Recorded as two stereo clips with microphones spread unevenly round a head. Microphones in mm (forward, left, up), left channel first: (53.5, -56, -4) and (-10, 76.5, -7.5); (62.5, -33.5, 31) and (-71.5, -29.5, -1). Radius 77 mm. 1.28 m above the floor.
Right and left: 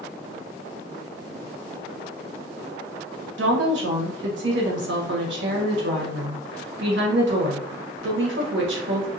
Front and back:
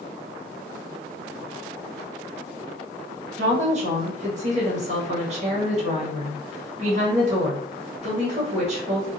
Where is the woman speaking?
130° left, 1.0 m.